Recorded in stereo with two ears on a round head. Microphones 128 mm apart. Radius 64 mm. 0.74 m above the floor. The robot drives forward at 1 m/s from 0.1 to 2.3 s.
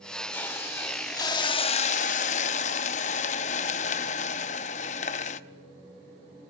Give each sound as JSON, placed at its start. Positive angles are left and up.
{"t": 0.3, "sound": "a hiss", "side_deg": 15, "distance_m": 1.9}